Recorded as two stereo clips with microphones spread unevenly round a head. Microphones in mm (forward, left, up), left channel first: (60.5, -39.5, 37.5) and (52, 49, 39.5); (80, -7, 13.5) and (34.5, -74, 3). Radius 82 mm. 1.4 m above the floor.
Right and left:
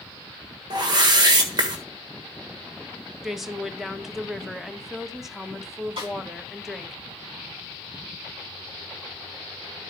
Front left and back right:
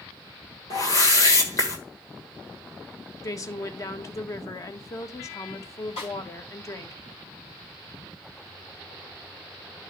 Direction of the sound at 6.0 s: 85° left.